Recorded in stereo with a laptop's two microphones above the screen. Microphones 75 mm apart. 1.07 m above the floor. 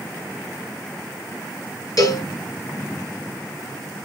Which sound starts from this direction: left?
A cowbell, at 2.0 s.